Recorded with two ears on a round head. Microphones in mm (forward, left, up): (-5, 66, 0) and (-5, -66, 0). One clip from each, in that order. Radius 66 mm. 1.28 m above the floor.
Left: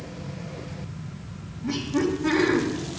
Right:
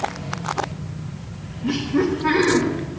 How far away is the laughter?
About 1.5 m.